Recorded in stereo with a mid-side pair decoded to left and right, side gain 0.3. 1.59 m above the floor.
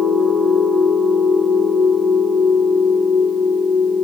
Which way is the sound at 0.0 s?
50° right.